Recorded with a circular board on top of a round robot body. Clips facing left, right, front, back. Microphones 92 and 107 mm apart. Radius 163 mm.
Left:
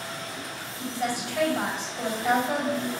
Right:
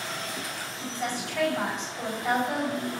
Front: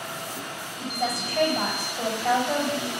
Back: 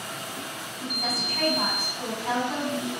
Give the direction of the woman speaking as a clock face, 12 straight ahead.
12 o'clock.